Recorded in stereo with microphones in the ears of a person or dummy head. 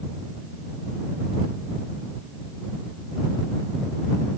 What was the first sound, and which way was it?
Only background noise.